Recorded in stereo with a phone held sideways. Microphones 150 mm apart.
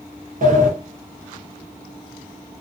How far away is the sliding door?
About 0.7 m.